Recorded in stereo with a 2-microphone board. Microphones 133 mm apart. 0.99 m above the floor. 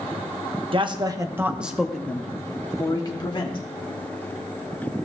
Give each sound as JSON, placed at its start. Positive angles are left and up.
{"t": 0.7, "sound": "a man speaking", "side_deg": -40, "distance_m": 0.8}